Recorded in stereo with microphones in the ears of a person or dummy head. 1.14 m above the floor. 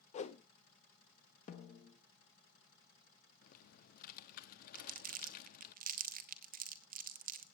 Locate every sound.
0.1 s a whoosh: 40° left (ahead or behind), 0.7 m
1.5 s a snare drum: 45° left (ahead or behind), 1.5 m
3.4 s typing on a keyboard: 55° left (ahead or behind), 0.9 m
4.8 s crumpling: 40° right (ahead or behind), 0.8 m